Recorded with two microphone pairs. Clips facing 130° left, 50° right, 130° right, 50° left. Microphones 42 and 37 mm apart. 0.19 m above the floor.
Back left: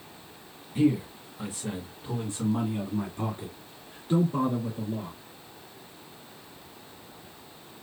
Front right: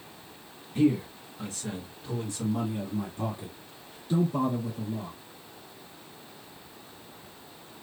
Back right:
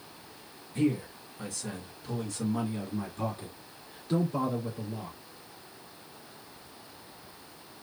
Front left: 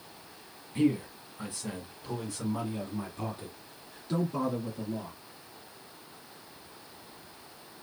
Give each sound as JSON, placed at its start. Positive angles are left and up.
{"t": 0.8, "sound": "a man speaking", "azimuth_deg": 50, "distance_m": 1.8}